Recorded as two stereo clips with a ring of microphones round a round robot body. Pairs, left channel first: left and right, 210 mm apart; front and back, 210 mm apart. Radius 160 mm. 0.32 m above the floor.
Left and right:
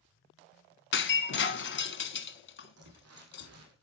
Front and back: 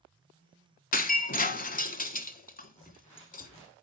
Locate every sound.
0.9 s breaking glass: 50° left, 1.4 m
2.8 s crumpling: 85° right, 3.5 m